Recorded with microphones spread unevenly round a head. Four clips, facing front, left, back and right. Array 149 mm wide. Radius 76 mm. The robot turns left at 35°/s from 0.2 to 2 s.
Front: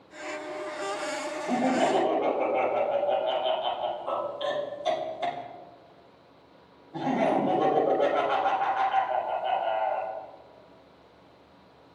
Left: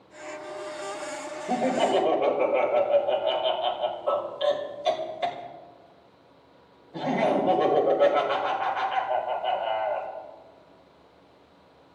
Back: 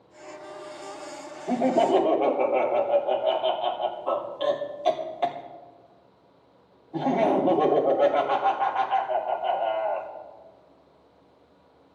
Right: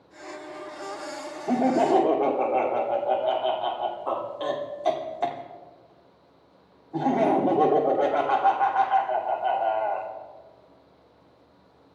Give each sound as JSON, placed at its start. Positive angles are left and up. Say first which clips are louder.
{"t": 1.5, "sound": "laughter", "louder": "right 3 dB, back 4 dB", "azimuth_deg": -110, "distance_m": 3.0}